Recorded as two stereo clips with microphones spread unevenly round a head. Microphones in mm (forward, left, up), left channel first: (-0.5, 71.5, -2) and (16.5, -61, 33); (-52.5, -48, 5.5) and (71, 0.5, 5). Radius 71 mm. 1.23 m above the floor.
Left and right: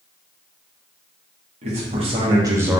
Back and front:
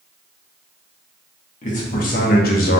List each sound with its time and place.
1.6 s a man speaking: 130° right, 1.5 m; by 2.8 s 170° right, 0.8 m